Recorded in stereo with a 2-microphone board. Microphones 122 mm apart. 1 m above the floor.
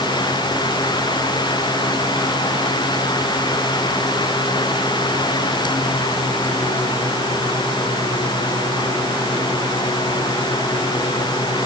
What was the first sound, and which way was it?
Only background noise.